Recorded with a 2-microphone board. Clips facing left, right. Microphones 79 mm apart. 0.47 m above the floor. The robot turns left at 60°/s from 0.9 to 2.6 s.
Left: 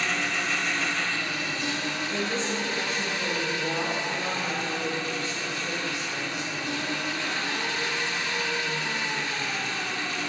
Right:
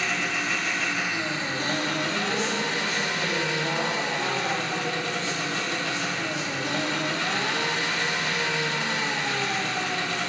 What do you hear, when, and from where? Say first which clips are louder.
0.0 s an engine running: even; 5° right, 0.8 m; by 10.3 s 105° right, 0.8 m
2.1 s a woman speaking: right 2 dB; 5° left, 3.5 m; by 6.5 s 25° right, 3.5 m